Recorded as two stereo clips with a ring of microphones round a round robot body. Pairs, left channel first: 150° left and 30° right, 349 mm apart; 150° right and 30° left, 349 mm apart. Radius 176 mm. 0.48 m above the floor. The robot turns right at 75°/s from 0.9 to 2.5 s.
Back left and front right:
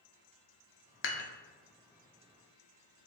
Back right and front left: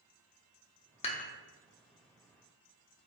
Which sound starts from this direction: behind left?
Dishes clattering, at 1.0 s.